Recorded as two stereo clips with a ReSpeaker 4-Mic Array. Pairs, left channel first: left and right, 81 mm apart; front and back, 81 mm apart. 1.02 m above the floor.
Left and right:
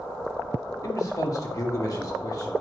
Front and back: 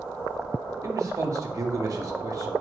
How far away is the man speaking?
About 2.0 m.